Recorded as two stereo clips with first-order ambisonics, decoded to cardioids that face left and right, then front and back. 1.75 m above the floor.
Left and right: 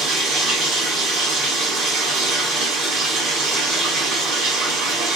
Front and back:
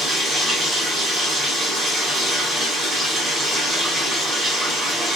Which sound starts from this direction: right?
Running water, at 0.0 s.